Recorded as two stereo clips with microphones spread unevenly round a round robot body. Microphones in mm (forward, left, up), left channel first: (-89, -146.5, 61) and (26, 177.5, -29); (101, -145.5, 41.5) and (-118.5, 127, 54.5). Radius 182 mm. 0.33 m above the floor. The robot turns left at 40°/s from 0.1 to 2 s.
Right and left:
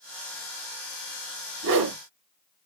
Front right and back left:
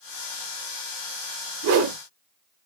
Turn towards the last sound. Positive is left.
turn(degrees=80)